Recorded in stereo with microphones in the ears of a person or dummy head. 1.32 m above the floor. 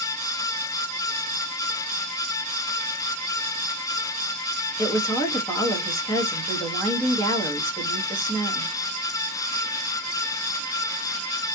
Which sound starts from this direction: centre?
A woman speaking, at 4.8 s.